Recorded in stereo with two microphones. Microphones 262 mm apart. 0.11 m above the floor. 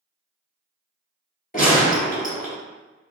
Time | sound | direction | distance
1.5 | a gunshot | 30° left (ahead or behind) | 1.5 m